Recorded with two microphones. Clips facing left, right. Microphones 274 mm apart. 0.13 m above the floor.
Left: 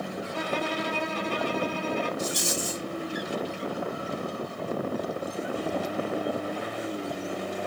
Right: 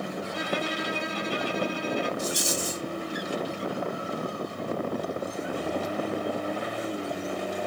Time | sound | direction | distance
0.3 | a violin | 65° left (ahead or behind) | 1.5 m
2.2 | a rattle | 65° left (ahead or behind) | 1.4 m